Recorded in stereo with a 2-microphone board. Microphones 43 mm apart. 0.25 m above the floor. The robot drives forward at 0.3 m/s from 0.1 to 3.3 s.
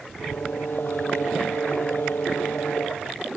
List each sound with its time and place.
0.2 s a violin: 55° left (ahead or behind); by 3.2 s 60° left (ahead or behind)